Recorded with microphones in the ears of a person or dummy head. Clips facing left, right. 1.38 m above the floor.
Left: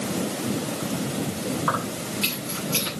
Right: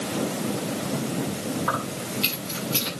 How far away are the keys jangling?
About 9.5 m.